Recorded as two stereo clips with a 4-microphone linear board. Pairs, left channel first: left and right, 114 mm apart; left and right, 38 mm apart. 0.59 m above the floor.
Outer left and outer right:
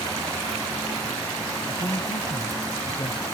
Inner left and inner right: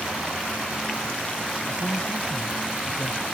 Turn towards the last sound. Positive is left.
turn(degrees=45)  # may be behind; listen again after turning